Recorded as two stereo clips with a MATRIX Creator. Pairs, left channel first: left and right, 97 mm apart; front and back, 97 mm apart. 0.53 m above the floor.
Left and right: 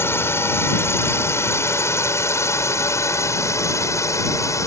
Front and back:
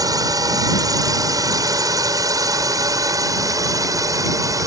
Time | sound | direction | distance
0.0 | a drone | 145° left | ?